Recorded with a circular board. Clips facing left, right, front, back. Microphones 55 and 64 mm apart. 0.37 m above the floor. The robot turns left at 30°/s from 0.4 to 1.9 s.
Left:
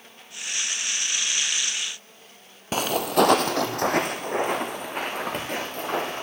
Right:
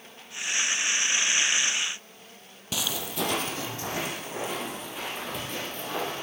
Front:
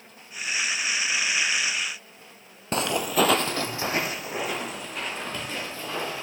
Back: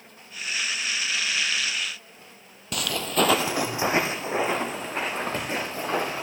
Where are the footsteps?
50° left, 0.7 m; by 6.2 s 135° left, 3 m.